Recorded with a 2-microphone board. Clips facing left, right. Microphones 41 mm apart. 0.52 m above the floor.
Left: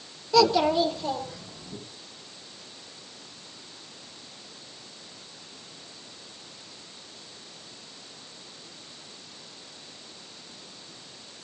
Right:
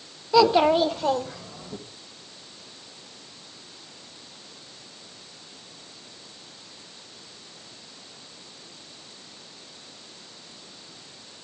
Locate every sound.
0.3 s a child speaking: 15° right (ahead or behind), 1.0 m; by 1.8 s 75° right (ahead or behind), 2 m